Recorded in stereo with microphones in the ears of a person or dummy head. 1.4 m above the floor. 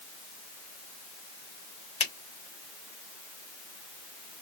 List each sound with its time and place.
2.0 s a finger snap: 40° left (ahead or behind), 1.4 m